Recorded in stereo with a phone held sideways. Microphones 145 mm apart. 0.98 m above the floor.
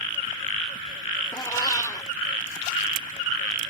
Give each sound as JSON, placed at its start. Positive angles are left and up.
{"t": 1.3, "sound": "a cat meowing", "side_deg": 25}